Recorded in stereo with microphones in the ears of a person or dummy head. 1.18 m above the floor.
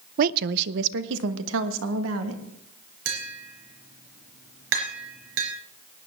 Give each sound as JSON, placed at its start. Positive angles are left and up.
{"t": 0.2, "sound": "a woman speaking", "side_deg": -45, "distance_m": 0.5}
{"t": 3.0, "sound": "tapping", "side_deg": -70, "distance_m": 3.5}